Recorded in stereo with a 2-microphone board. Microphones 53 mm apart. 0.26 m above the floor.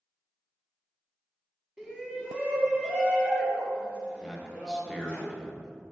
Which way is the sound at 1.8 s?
15° right (ahead or behind).